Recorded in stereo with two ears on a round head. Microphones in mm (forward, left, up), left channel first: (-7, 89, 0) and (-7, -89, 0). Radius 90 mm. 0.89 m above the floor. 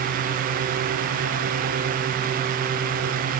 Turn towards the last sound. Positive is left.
No sound to turn to.